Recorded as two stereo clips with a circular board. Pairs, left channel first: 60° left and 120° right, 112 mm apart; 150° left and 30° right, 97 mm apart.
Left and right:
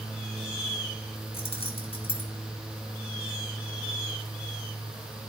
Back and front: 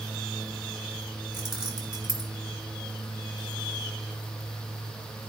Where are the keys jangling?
55° left, 1.8 m.